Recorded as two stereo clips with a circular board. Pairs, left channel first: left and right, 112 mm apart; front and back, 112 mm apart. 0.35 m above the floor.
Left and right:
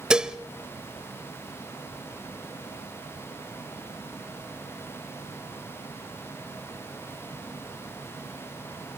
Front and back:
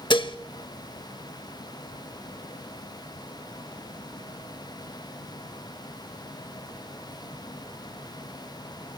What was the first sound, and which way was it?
Dishes clattering, 10° right.